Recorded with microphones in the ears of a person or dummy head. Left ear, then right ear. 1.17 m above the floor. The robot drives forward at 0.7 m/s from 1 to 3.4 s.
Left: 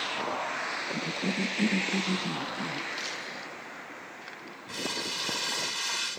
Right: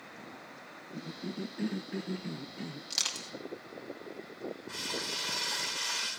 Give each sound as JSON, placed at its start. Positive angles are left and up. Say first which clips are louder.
{"t": 0.9, "sound": "a cough", "louder": "left 11 dB", "side_deg": 60, "distance_m": 0.7}
{"t": 2.9, "sound": "crushing", "louder": "right 1 dB", "side_deg": -50, "distance_m": 3.5}
{"t": 4.7, "sound": "crumpling", "louder": "left 4 dB", "side_deg": 25, "distance_m": 7.0}